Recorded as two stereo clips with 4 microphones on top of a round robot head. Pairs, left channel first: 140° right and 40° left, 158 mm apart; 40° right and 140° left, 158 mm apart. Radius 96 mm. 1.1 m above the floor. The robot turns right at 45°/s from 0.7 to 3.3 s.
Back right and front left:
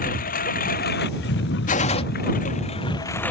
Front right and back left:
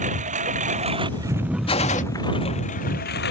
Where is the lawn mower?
175° right; by 3.3 s 60° right.